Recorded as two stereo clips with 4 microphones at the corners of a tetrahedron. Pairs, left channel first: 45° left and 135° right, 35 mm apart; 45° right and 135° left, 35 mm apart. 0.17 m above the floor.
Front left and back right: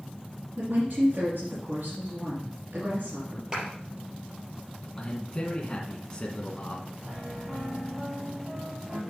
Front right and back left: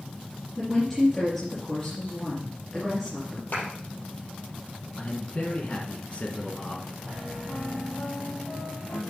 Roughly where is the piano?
Right.